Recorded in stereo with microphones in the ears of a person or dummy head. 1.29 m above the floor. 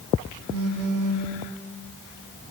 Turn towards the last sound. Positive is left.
turn(degrees=-65)  # may be behind; listen again after turning